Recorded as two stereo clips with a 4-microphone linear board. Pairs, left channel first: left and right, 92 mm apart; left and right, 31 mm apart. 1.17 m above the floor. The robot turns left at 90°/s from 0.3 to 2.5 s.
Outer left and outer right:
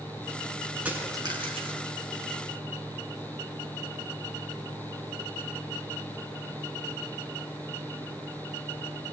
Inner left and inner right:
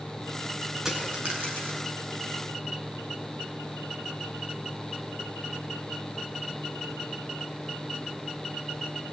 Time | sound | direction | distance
0.8 | a dropped coin | 15° right (ahead or behind) | 7 m